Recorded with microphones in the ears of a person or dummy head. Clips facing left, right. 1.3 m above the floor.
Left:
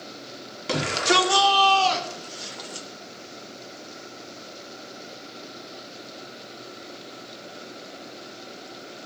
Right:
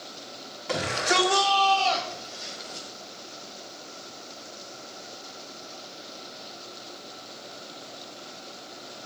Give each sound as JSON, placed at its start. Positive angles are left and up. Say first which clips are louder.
{"t": 0.7, "sound": "a shout", "louder": "left 3 dB", "side_deg": 50, "distance_m": 3.5}